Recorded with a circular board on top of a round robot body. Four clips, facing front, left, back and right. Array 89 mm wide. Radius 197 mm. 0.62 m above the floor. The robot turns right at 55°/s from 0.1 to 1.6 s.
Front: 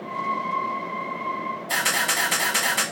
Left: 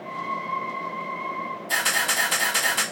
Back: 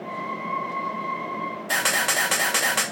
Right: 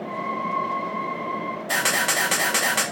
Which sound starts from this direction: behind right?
A camera shutter, at 1.7 s.